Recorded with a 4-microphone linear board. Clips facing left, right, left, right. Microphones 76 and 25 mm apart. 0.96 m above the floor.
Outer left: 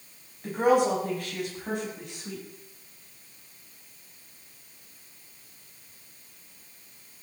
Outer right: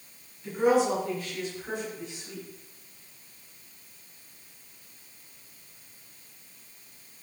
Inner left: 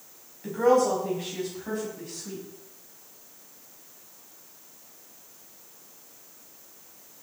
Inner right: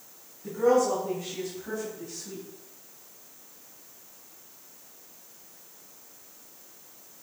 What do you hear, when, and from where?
0.4 s a woman speaking: 55° left (ahead or behind), 5 m; by 2.4 s 65° left (ahead or behind), 6 m